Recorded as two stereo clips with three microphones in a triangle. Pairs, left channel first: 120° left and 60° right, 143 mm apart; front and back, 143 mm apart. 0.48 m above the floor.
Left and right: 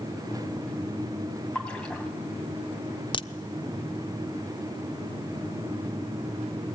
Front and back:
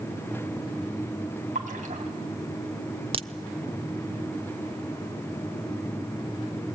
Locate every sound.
1.6 s a splash: 155° right, 3 m
3.1 s a crack: 155° left, 0.5 m